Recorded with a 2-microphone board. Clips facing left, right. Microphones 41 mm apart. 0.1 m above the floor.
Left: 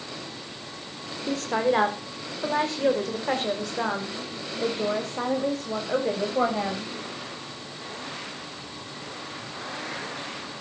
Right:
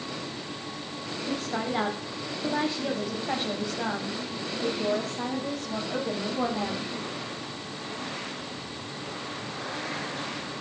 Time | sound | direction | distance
1.3 | a woman speaking | 75° left (ahead or behind) | 7 m